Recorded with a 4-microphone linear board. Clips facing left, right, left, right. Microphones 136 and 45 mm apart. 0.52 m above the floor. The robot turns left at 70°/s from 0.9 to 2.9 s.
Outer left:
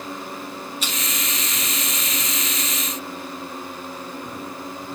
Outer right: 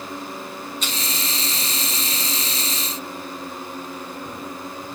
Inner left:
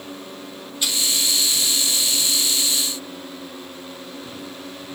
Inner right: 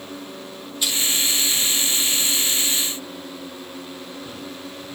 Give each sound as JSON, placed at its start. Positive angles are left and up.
{"t": 0.8, "sound": "crushing", "side_deg": 5, "distance_m": 3.0}